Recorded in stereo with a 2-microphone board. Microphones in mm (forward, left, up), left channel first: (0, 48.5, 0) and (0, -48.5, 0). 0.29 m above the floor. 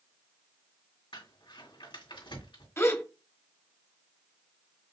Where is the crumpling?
65° left (ahead or behind), 3 m.